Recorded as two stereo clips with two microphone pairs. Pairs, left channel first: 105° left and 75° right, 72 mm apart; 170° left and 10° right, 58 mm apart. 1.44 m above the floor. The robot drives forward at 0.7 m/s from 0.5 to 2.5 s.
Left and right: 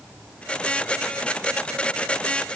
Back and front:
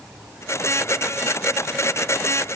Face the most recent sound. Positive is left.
No sound to turn to.